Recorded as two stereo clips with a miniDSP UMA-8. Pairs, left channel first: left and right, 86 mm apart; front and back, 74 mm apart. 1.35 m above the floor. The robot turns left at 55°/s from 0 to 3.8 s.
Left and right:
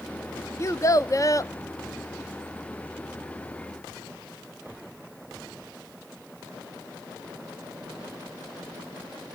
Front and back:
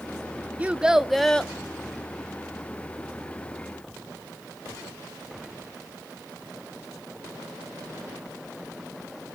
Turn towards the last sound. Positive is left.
turn(degrees=-55)